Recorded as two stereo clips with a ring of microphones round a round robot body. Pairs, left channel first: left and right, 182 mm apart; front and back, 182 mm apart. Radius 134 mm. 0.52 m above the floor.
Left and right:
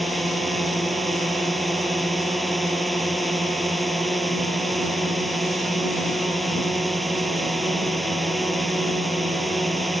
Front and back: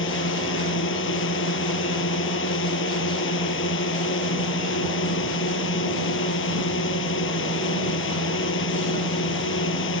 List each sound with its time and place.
0.0 s a drone: straight ahead